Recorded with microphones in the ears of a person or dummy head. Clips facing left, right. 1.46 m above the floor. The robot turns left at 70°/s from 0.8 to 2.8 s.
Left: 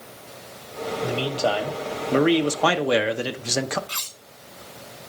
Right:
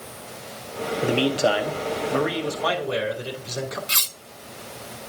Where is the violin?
No violin in this recording.